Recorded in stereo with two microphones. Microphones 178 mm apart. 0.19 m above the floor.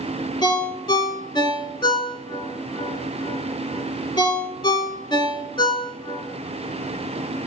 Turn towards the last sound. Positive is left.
turn(degrees=25)  # may be behind; listen again after turning